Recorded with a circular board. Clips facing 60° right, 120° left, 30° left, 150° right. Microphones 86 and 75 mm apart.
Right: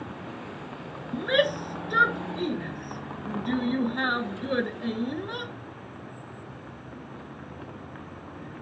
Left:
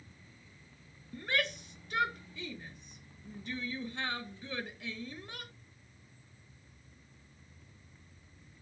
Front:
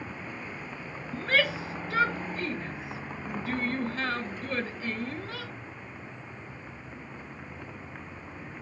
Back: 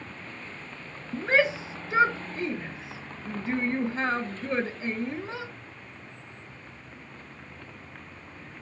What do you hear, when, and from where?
0.0 s a vehicle: 50° right
1.1 s a shout: 85° right